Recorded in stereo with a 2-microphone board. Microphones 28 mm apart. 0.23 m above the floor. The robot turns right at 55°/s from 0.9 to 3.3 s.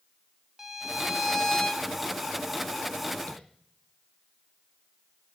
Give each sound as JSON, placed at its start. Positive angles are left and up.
{"t": 0.6, "sound": "a violin", "azimuth_deg": -25, "distance_m": 1.5}
{"t": 3.3, "sound": "tapping", "side_deg": 55, "distance_m": 4.0}